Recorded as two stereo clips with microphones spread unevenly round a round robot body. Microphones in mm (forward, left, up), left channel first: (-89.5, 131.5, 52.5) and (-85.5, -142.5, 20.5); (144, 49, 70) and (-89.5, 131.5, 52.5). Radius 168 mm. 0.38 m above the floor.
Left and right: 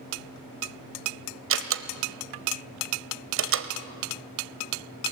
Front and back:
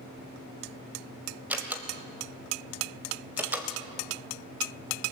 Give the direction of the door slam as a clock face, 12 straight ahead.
4 o'clock.